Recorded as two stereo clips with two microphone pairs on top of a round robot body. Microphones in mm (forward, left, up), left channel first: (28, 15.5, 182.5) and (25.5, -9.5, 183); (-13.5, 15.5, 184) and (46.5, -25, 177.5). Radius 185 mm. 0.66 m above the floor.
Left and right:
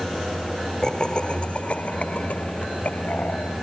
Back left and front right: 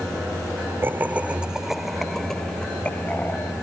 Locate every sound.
0.8 s laughter: 25° left; by 3.5 s 80° left